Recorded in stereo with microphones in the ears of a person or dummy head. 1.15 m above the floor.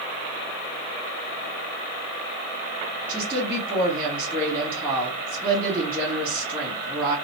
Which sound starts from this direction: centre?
A woman speaking, at 3.1 s.